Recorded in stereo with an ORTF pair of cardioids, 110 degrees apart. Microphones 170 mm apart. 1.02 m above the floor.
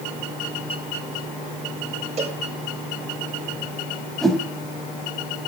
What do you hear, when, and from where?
2.2 s a cowbell: 40° right, 4 m
4.2 s a whoosh: straight ahead, 3 m